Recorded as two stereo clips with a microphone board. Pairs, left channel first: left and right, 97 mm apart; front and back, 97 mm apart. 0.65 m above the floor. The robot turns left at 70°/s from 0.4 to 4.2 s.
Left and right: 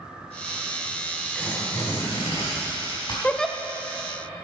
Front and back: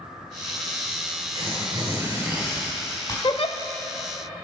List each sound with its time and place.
1.4 s tearing paper: 170° left, 4 m; by 3.1 s 45° left, 4 m
3.2 s a giggle: 20° left, 0.6 m; by 3.6 s straight ahead, 0.6 m